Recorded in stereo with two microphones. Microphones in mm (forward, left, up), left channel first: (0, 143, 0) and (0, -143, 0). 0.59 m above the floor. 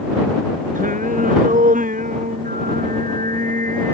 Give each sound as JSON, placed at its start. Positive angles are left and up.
{"t": 0.8, "sound": "singing", "side_deg": -25}